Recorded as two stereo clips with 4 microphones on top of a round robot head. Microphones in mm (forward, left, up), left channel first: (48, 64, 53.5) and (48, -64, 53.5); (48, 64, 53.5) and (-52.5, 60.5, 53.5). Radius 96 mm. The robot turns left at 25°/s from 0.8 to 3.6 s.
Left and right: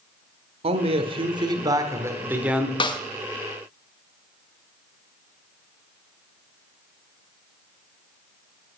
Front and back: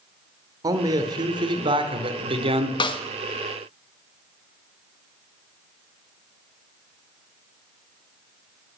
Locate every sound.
0.6 s a man speaking: 125° right, 1.3 m; by 2.7 s 175° right, 1.3 m
2.8 s a snare drum: 40° left, 1.2 m; by 3.0 s 35° left, 1.2 m